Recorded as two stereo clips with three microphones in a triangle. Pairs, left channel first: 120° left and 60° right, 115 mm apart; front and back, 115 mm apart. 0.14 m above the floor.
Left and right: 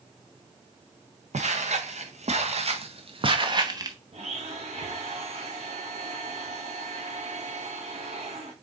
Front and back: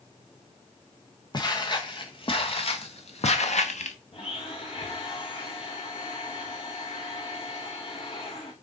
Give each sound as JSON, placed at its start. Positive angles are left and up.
{"t": 1.3, "sound": "footsteps", "azimuth_deg": -50, "distance_m": 1.8}
{"t": 4.1, "sound": "a blender", "azimuth_deg": -35, "distance_m": 1.6}